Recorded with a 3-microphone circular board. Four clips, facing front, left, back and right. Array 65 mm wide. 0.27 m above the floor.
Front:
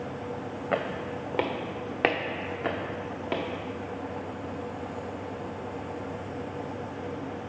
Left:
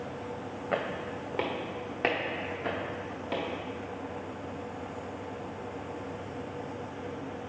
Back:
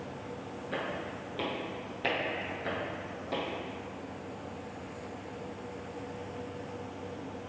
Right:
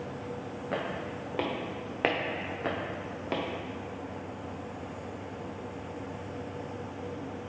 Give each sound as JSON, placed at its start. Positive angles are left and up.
{"t": 0.7, "sound": "footsteps", "azimuth_deg": 15, "distance_m": 1.0}